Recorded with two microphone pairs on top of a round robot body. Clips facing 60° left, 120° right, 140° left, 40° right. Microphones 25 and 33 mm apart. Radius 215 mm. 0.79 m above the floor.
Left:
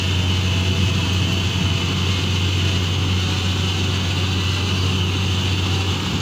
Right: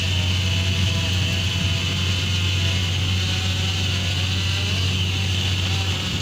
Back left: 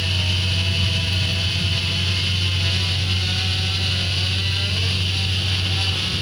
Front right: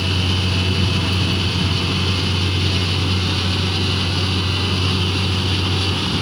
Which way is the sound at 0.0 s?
Straight ahead.